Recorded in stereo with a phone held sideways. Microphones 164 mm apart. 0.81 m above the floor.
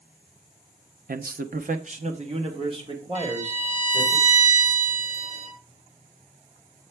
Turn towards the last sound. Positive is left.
turn(degrees=-50)  # may be behind; listen again after turning